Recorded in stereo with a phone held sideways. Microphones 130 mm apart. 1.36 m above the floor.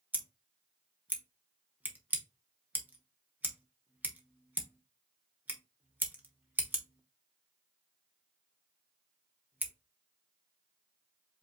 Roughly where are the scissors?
Centre.